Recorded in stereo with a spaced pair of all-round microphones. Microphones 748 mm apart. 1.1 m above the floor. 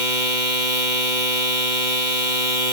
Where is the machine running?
85° right.